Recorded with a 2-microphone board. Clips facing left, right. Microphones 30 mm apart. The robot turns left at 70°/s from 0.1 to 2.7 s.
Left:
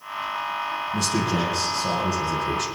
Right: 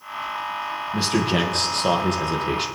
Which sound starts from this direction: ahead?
A man speaking, at 0.9 s.